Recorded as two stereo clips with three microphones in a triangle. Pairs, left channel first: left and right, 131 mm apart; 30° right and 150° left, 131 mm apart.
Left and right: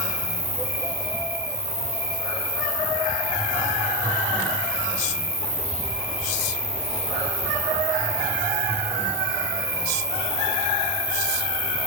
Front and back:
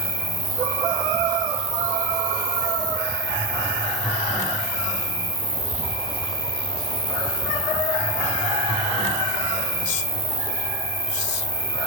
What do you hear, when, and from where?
0.0 s an insect: 165° right, 5.5 m